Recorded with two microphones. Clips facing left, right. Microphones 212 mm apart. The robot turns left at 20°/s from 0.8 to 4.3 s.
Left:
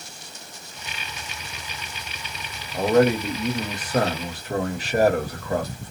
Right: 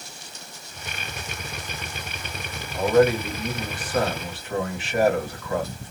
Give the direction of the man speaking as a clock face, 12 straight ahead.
9 o'clock.